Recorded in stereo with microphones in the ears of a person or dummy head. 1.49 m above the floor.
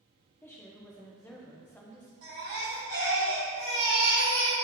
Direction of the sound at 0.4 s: 15° left (ahead or behind).